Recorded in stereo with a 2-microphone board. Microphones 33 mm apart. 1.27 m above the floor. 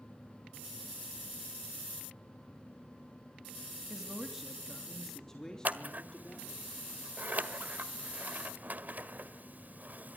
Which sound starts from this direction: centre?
A man speaking, at 3.9 s.